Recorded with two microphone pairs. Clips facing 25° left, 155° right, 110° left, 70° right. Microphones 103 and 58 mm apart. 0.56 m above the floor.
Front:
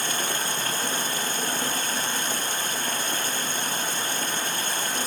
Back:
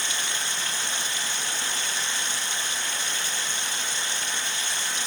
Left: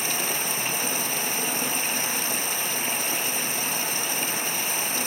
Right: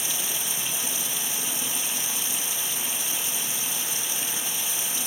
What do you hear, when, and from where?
0.0 s running water: 70° left